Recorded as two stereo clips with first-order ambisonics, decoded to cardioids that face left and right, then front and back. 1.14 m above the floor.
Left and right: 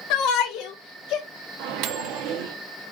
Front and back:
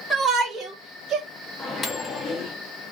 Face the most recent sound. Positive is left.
turn(degrees=-75)